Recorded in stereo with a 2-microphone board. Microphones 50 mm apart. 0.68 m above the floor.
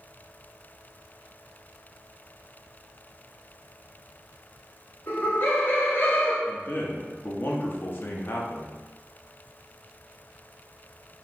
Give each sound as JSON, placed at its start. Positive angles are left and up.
{"t": 5.1, "sound": "laughter", "side_deg": 45, "distance_m": 1.6}
{"t": 6.5, "sound": "a man speaking", "side_deg": 45, "distance_m": 0.7}